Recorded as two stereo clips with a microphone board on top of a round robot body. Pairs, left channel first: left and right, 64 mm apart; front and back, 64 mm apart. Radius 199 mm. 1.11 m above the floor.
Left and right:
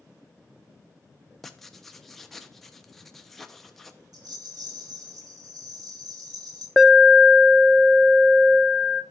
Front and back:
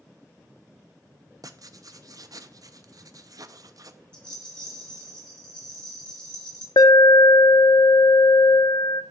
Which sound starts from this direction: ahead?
An alarm, at 6.8 s.